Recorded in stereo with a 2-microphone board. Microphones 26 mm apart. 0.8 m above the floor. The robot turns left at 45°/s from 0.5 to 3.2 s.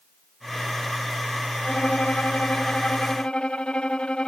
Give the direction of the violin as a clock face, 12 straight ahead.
8 o'clock.